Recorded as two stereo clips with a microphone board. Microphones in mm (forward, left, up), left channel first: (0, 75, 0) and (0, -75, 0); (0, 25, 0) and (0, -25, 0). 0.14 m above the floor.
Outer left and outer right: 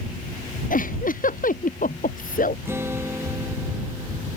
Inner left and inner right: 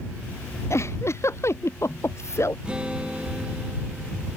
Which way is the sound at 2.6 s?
15° right (ahead or behind).